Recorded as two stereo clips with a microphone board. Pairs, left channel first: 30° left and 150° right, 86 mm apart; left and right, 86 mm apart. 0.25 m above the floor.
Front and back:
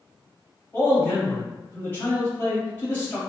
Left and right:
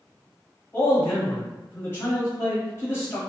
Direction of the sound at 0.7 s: 75° left.